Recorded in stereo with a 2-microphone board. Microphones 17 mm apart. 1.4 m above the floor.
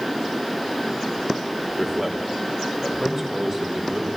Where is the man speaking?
10° right (ahead or behind), 4 m; by 4.1 s 30° right (ahead or behind), 6 m.